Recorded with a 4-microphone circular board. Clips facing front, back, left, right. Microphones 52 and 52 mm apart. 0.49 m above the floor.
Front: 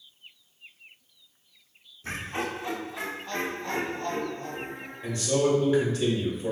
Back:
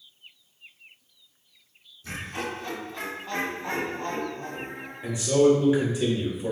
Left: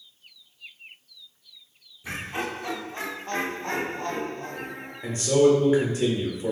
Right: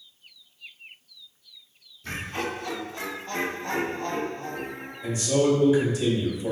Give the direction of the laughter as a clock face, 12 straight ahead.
11 o'clock.